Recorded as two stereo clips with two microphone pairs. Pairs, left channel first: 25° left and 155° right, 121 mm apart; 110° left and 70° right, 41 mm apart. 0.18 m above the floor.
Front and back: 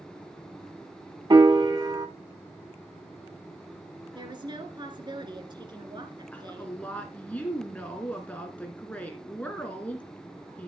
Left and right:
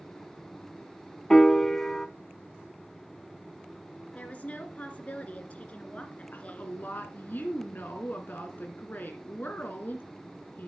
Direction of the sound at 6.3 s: 105° left.